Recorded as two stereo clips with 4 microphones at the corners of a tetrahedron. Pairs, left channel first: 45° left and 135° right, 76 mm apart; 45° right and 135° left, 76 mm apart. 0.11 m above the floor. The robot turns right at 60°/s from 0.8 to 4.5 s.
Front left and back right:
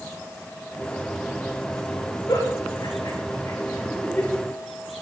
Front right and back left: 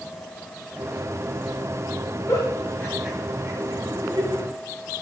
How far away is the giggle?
About 8.5 m.